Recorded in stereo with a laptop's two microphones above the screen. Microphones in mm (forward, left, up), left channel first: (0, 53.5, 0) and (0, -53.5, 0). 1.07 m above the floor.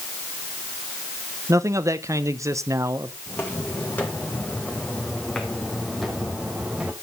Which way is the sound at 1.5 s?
25° right (ahead or behind).